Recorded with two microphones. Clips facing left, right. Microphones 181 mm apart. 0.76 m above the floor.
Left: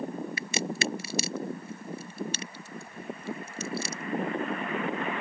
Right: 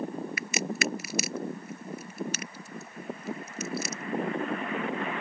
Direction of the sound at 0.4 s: 30° left (ahead or behind).